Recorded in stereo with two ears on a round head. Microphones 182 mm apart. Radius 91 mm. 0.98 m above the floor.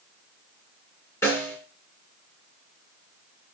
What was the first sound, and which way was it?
A snare drum, 15° left (ahead or behind).